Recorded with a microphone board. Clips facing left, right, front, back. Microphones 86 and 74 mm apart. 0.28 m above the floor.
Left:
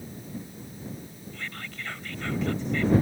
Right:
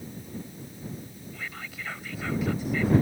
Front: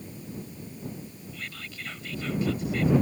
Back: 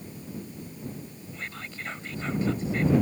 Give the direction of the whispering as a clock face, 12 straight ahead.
6 o'clock.